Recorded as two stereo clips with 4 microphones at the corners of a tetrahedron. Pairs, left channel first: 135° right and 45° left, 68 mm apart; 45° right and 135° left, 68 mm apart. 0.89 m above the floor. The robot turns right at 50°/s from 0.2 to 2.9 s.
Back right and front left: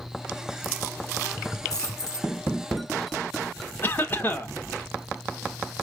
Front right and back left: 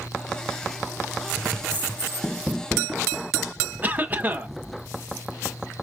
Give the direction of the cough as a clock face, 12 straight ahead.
6 o'clock.